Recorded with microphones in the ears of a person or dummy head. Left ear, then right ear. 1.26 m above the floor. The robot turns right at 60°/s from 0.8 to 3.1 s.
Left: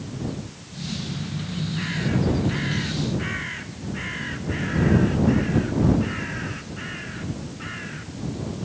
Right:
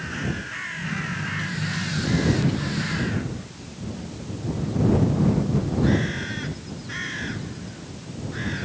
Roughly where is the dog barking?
No dog barking in this recording.